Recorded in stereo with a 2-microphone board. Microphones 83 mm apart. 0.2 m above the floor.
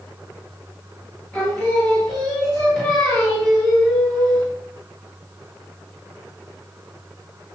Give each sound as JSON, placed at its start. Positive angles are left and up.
{"t": 1.3, "sound": "singing", "side_deg": 5, "distance_m": 1.6}